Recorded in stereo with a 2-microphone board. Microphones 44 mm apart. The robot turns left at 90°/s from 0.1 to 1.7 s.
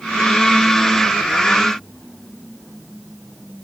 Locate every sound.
Only background noise.